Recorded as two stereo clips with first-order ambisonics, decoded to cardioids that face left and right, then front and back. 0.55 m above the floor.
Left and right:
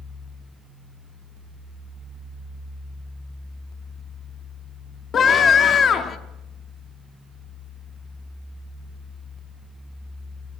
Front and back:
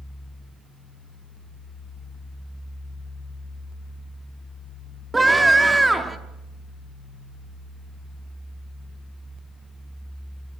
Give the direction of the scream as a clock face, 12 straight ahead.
8 o'clock.